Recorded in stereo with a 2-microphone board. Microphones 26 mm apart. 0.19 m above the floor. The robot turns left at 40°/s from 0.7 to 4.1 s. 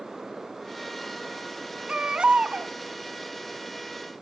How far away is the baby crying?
About 0.6 m.